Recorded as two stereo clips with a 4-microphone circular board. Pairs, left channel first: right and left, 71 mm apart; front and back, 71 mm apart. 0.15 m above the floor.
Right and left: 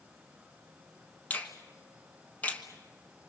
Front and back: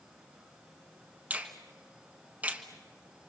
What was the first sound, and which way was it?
A finger snap, 135° right.